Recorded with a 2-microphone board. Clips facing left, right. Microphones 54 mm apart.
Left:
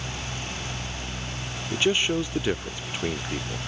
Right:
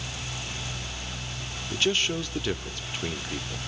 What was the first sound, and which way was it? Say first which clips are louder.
A man speaking: left 3 dB; 20° left (ahead or behind).